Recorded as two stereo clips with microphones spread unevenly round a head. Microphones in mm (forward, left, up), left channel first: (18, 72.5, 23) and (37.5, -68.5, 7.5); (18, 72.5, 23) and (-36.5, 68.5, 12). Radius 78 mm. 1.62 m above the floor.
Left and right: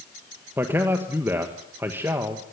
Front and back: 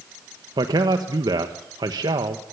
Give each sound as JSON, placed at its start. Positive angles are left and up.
{"t": 0.6, "sound": "a man speaking", "azimuth_deg": -165, "distance_m": 1.3}